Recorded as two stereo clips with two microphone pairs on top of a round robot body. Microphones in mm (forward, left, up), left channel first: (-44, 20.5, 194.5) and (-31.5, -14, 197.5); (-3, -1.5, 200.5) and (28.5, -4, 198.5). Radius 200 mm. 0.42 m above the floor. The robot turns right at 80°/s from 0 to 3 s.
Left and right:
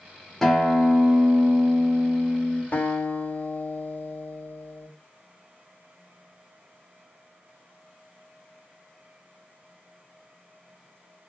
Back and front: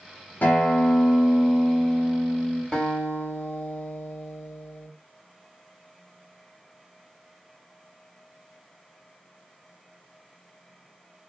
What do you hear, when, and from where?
0.4 s a guitar: 160° right, 0.6 m; by 2.6 s 15° left, 0.6 m
2.7 s a guitar: 100° left, 1.9 m; by 4.9 s 125° left, 1.9 m